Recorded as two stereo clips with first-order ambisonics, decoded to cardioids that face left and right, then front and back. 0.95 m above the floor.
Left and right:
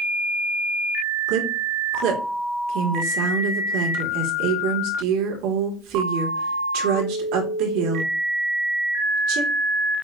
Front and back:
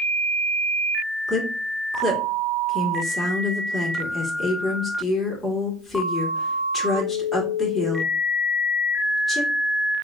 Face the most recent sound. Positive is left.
turn(degrees=-80)